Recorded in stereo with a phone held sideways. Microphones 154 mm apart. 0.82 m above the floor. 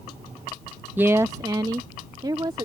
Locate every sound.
1.0 s a woman speaking: 10° right (ahead or behind); by 2.7 s 30° right (ahead or behind)